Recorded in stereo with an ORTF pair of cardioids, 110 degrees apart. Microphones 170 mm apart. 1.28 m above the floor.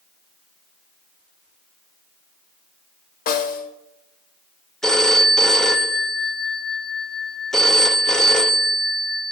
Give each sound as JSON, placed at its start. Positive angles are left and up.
{"t": 3.3, "sound": "a snare drum", "azimuth_deg": 60, "distance_m": 1.2}
{"t": 4.8, "sound": "a phone ringing", "azimuth_deg": 5, "distance_m": 0.7}